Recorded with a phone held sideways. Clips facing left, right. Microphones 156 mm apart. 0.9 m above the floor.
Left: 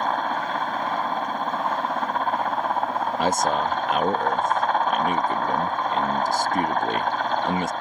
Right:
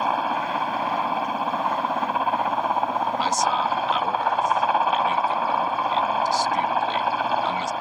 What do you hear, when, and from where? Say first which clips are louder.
0.0 s a helicopter: right 1 dB; 5° right (ahead or behind)
3.2 s a man speaking: left 4 dB; 55° left (ahead or behind)